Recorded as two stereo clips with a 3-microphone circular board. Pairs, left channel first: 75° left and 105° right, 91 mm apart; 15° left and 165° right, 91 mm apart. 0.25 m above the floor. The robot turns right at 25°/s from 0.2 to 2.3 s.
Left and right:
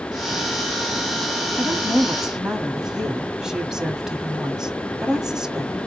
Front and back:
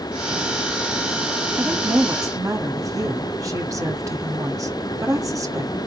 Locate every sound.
1.6 s a woman speaking: 155° left, 1.3 m; by 5.8 s 175° left, 1.3 m